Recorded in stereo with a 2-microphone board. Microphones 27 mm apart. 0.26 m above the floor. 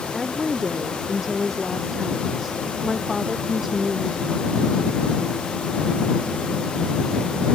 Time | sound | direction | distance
0.1 | a woman speaking | 10° right (ahead or behind) | ?